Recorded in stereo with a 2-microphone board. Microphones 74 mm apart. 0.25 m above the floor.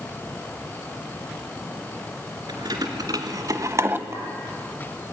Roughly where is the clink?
Right.